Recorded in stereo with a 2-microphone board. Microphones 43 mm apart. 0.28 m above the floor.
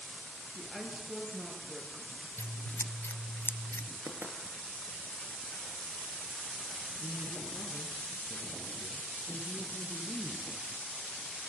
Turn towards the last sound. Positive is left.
turn(degrees=10)  # may be behind; listen again after turning